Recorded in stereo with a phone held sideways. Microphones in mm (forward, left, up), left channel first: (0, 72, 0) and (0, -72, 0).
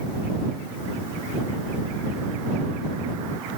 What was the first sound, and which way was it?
Only background noise.